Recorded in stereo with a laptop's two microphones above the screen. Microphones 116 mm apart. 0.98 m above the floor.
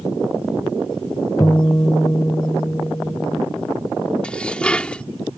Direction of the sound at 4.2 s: 10° left (ahead or behind).